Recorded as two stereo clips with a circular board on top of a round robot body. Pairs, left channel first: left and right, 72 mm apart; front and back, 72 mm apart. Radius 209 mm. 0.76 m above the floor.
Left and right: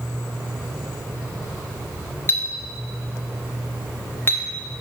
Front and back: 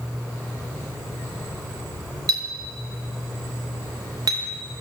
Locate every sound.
2.3 s a clink: 150° left, 0.9 m